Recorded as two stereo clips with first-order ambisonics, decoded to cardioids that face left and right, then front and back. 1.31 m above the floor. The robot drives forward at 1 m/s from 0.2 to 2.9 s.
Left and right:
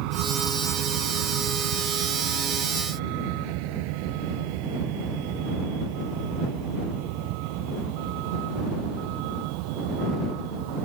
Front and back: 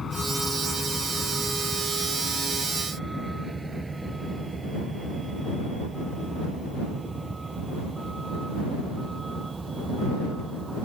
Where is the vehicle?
70° right; by 10.8 s 105° right.